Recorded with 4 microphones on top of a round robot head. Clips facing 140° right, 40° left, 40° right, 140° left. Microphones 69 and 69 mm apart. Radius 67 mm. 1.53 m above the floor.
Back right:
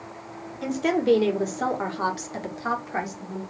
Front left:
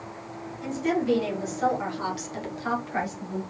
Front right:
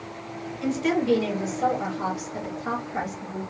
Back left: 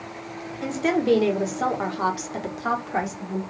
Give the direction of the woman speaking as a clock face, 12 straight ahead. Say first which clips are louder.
Back right 3 dB, back left 1 dB; 6 o'clock.